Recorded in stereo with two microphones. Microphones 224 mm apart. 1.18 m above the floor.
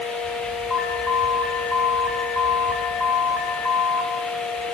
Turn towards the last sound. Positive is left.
turn(degrees=-5)  # may be behind; listen again after turning